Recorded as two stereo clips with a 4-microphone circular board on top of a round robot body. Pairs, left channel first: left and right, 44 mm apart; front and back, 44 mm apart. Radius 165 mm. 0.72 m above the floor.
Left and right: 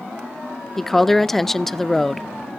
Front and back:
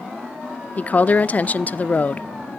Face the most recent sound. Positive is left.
turn(degrees=10)